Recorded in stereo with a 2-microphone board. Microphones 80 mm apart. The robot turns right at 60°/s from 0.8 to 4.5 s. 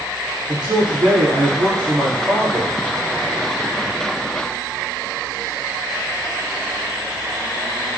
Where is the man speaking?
105° right, 4 m; by 2.7 s 10° left, 4 m.